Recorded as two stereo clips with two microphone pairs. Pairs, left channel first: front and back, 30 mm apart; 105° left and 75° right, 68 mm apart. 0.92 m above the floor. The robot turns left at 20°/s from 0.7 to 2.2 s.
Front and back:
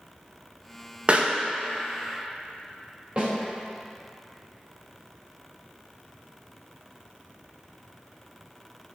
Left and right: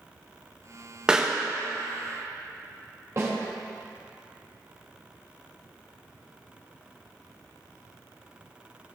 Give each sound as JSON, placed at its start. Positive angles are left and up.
{"t": 1.1, "sound": "a pop", "azimuth_deg": -150, "distance_m": 0.9}
{"t": 3.2, "sound": "a snare drum", "azimuth_deg": -120, "distance_m": 3.0}